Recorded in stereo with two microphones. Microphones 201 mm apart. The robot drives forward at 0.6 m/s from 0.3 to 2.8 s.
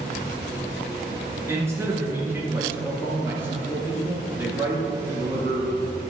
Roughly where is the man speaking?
Centre.